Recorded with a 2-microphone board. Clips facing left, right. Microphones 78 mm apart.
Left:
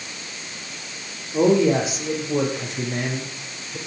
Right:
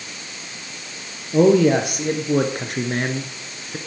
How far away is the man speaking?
About 3 m.